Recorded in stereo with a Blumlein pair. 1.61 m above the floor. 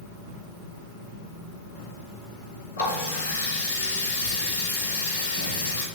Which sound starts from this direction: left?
A running tap, at 2.8 s.